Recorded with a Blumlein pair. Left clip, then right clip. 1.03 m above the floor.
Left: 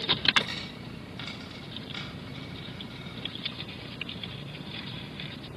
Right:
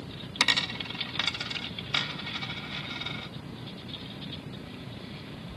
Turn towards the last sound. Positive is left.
turn(degrees=-35)